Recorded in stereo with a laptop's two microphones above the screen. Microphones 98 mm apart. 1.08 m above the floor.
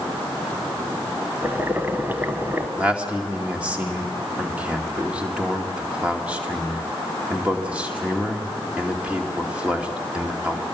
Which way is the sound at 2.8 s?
15° right (ahead or behind).